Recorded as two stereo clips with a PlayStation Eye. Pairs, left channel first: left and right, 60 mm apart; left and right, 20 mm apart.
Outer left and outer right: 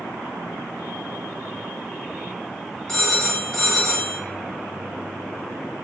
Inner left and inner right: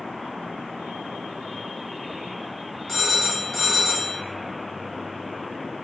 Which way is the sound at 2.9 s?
15° left (ahead or behind).